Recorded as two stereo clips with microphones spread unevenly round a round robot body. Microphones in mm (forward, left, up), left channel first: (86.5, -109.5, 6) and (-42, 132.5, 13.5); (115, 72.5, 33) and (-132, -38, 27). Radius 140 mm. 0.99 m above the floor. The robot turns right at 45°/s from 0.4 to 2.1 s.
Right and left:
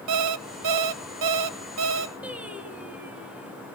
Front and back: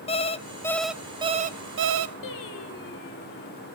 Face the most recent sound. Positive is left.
turn(degrees=35)